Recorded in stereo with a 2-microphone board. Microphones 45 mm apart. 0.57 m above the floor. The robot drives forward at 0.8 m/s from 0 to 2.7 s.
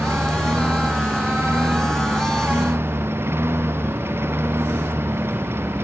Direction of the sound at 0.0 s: 65° right (ahead or behind).